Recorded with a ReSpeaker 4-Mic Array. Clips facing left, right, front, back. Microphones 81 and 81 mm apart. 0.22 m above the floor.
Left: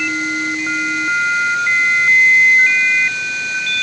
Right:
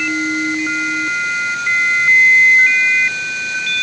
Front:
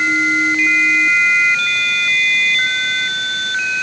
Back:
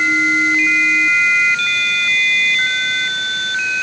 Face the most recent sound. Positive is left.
No sound to turn to.